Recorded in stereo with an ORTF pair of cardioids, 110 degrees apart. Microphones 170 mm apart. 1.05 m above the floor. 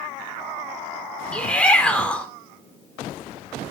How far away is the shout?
About 4 m.